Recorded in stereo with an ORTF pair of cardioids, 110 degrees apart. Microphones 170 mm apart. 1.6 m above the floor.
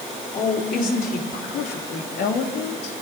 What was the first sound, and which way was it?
A woman speaking, 55° left.